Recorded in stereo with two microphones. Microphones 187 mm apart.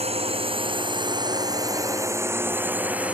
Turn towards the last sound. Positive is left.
turn(degrees=-5)  # may be behind; listen again after turning